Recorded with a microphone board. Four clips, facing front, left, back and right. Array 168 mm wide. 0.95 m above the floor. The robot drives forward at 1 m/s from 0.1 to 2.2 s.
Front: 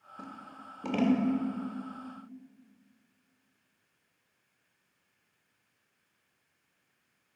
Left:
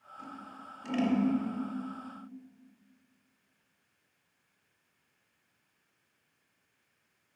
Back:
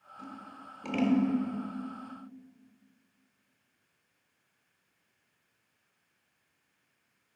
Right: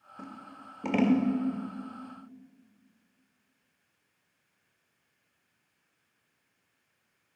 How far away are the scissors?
About 1.7 m.